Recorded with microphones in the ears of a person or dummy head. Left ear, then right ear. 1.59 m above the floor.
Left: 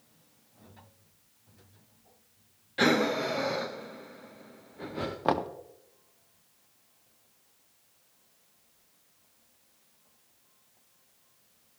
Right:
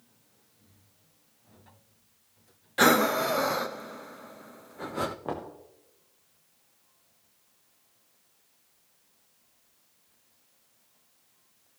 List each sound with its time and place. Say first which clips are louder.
2.8 s breathing: right 4 dB; 40° right (ahead or behind), 0.6 m
5.2 s knocking: left 8 dB; 50° left (ahead or behind), 0.9 m